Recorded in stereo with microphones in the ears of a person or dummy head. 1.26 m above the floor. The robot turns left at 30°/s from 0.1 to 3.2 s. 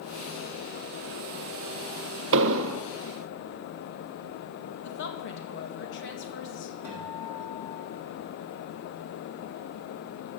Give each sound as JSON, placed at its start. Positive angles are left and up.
{"t": 2.3, "sound": "an explosion", "side_deg": -70, "distance_m": 0.6}
{"t": 4.8, "sound": "a woman speaking", "side_deg": 65, "distance_m": 1.8}
{"t": 6.8, "sound": "a guitar", "side_deg": -10, "distance_m": 6.5}